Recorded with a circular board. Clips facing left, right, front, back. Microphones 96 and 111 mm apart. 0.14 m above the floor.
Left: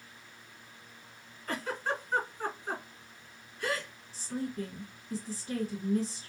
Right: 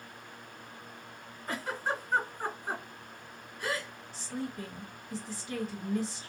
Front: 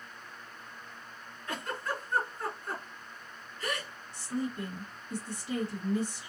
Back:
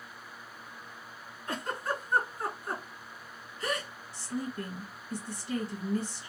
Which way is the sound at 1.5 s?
160° right.